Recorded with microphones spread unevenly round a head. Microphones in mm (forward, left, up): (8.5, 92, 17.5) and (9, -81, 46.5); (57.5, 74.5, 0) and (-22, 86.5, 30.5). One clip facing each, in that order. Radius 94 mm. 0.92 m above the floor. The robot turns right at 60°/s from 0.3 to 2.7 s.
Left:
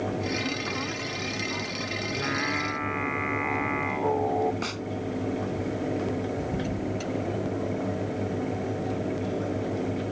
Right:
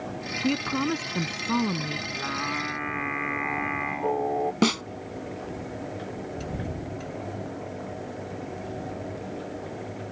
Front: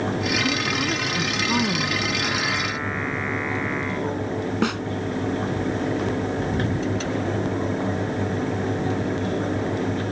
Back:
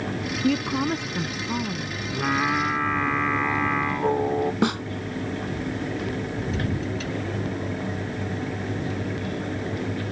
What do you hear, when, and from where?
0.4 s a woman speaking: 145° right; by 2.0 s 50° right
2.1 s singing: 150° left; by 4.5 s 175° right
4.6 s a snare drum: 110° right